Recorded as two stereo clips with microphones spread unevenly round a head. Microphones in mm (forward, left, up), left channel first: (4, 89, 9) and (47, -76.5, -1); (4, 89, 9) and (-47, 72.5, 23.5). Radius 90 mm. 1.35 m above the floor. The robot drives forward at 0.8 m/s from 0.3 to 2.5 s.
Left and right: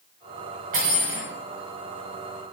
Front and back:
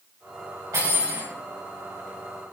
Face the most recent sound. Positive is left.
turn(degrees=-135)